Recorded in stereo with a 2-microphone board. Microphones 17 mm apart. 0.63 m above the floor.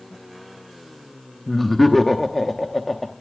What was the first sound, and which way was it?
Laughter, 5° left (ahead or behind).